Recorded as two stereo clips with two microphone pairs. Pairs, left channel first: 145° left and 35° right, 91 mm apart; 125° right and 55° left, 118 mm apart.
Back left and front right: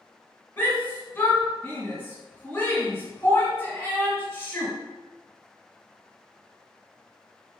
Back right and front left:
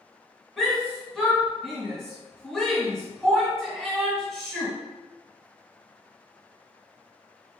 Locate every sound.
0.6 s a shout: 150° left, 1.5 m